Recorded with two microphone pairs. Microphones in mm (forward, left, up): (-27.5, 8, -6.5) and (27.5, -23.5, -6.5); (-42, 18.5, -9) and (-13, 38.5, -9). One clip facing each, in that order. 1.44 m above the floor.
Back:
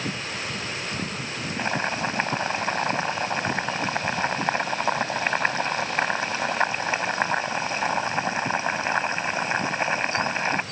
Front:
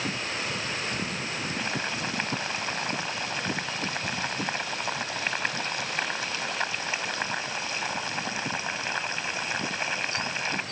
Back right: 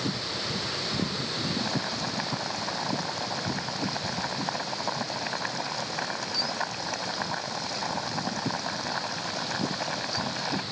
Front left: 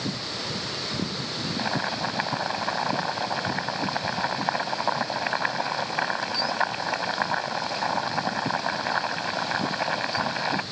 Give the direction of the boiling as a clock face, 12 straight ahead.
9 o'clock.